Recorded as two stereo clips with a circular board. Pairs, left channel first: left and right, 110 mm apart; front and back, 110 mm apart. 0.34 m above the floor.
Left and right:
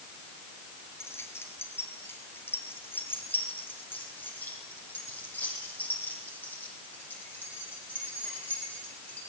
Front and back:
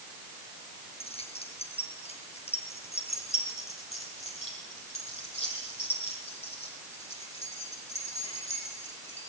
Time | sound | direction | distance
1.0 | keys jangling | 25° left | 4.5 m